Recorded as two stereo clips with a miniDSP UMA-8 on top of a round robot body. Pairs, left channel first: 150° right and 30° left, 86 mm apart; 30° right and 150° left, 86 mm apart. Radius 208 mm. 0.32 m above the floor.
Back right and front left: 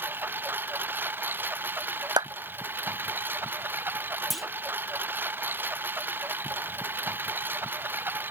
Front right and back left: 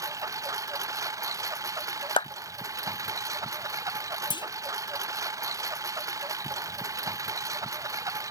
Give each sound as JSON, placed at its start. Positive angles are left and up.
{"t": 0.0, "sound": "a lawn mower", "azimuth_deg": 100}
{"t": 2.2, "sound": "a clap", "azimuth_deg": -10}
{"t": 4.3, "sound": "a clunk", "azimuth_deg": -60}